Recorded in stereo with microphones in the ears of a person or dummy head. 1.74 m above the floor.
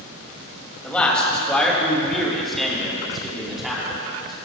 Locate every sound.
0.8 s a man speaking: 5° left (ahead or behind), 3 m; by 4.3 s centre (ahead or behind), 5 m